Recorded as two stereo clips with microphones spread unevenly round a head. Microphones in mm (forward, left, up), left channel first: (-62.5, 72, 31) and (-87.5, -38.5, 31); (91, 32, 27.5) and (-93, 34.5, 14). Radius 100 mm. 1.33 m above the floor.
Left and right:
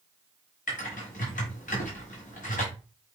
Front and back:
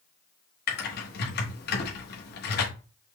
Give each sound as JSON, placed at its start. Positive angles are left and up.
{"t": 0.7, "sound": "typing on a keyboard", "azimuth_deg": 30, "distance_m": 1.1}